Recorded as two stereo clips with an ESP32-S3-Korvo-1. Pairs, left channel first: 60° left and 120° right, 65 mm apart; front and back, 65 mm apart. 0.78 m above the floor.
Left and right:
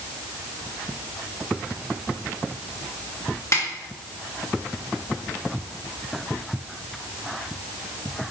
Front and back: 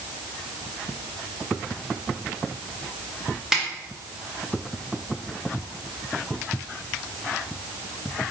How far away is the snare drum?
About 1.1 m.